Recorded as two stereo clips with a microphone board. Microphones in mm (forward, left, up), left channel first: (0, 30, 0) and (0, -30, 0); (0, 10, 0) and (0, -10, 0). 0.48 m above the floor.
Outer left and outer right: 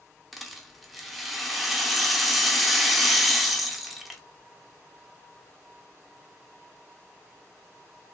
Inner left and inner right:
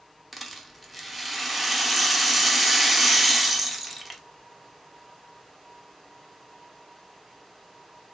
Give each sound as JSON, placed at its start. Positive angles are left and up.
{"t": 0.3, "sound": "a rattle", "side_deg": 0, "distance_m": 0.5}